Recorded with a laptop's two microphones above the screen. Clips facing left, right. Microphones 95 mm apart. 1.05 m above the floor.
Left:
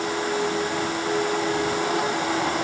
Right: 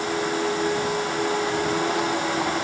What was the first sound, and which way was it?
Only background noise.